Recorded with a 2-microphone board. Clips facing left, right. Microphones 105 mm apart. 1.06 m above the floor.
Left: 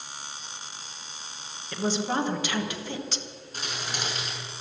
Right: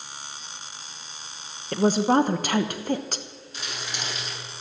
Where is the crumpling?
40° left (ahead or behind), 7 m.